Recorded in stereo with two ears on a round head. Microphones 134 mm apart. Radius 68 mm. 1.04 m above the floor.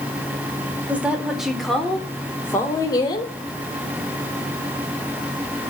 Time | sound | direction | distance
0.9 | a woman speaking | 10° right (ahead or behind) | 3.5 m